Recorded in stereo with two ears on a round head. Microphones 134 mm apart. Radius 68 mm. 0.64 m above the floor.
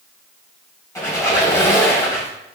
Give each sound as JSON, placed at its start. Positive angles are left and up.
{"t": 0.9, "sound": "a squeak", "side_deg": 20, "distance_m": 1.5}